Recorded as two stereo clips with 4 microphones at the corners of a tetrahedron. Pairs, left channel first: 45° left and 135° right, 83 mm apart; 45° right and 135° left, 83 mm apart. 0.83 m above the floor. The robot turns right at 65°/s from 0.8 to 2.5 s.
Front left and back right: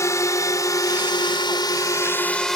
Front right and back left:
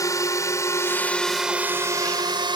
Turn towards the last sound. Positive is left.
turn(degrees=130)